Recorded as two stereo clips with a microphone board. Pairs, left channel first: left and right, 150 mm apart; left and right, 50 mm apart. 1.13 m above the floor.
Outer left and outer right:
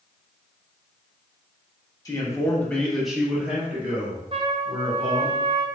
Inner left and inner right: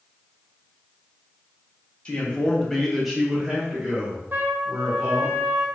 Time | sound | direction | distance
2.0 | a man speaking | 20° left (ahead or behind) | 0.7 m
4.3 | a trumpet | 35° right (ahead or behind) | 0.5 m